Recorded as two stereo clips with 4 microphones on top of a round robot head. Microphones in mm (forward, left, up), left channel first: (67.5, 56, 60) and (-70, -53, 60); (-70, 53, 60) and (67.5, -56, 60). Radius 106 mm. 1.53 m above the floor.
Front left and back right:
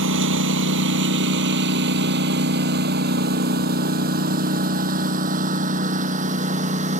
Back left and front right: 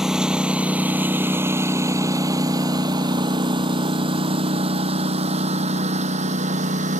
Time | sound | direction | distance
0.0 | a lawn mower | 125° right | ?